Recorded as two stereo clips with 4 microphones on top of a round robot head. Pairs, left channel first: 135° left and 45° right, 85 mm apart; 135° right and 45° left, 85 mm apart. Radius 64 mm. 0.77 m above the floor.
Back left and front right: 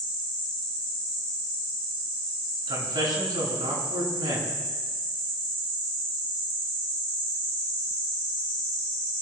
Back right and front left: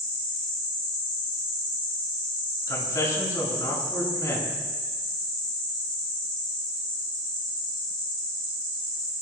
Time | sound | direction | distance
2.7 | a man speaking | 80° right | 7.5 m